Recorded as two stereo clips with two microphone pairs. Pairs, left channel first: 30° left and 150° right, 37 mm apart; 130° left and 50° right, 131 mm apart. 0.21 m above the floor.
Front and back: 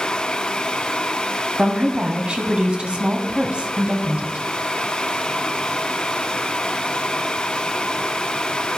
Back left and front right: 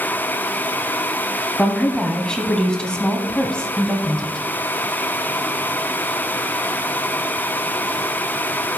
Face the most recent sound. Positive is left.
turn(degrees=-160)